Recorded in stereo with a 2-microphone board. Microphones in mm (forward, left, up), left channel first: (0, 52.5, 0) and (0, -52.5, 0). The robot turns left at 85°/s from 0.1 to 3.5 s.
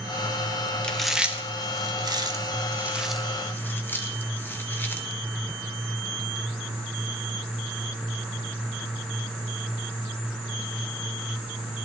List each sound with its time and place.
0.8 s chewing: 10° left (ahead or behind), 1.0 m; by 5.0 s 20° left (ahead or behind), 1.0 m